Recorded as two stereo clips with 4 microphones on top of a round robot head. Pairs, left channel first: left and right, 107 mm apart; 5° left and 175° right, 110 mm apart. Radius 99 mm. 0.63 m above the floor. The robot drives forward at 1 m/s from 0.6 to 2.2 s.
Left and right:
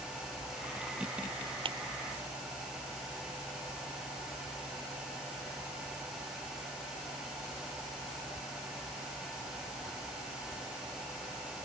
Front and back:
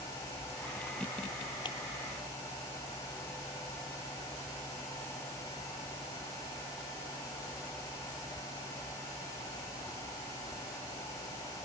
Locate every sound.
1.6 s a clap: 50° right